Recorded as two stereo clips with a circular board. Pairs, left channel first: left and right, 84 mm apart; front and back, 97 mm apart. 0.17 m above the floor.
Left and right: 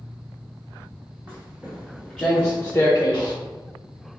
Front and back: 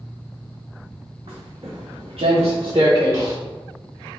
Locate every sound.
1.3 s footsteps: 160° right, 1.2 m; by 3.4 s 125° left, 0.9 m